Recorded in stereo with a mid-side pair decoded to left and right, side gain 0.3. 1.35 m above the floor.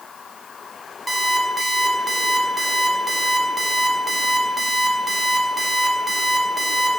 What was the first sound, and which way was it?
An alarm clock, 30° right.